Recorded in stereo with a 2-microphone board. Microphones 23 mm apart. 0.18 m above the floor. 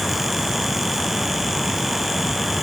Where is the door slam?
I don't hear a door slam.